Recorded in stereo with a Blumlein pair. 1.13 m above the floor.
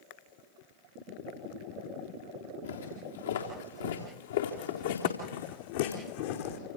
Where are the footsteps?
70° left, 6 m; by 6.6 s 50° left, 3.5 m.